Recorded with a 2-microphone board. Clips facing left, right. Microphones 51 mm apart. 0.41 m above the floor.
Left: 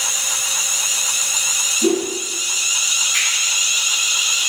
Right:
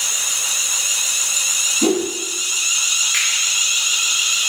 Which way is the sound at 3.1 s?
45° right (ahead or behind).